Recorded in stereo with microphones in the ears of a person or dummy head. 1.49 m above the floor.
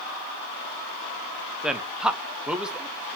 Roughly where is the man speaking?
Centre.